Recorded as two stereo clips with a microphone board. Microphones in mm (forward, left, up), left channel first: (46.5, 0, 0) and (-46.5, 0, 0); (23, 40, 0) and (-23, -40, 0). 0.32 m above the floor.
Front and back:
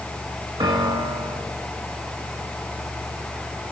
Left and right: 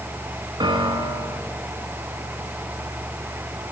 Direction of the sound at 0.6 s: 150° right.